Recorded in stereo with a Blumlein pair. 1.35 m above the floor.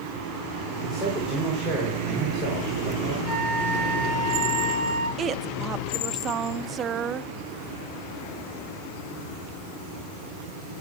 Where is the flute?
45° right, 5 m.